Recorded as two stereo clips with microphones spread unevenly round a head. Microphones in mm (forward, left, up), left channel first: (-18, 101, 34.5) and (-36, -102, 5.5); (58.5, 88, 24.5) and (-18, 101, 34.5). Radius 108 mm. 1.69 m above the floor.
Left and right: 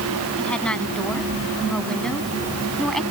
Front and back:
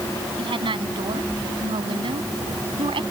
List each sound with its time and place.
0.4 s a woman speaking: 170° left